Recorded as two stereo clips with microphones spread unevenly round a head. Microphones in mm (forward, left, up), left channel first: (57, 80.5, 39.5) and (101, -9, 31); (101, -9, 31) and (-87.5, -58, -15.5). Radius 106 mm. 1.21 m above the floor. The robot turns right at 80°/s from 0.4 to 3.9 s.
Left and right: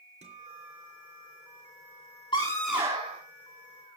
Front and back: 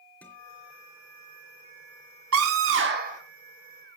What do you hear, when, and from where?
0.2 s a guitar: 65° right, 4.5 m; by 2.2 s 80° left, 4.5 m
2.3 s a scream: straight behind, 3.5 m; by 3.2 s 110° right, 3.5 m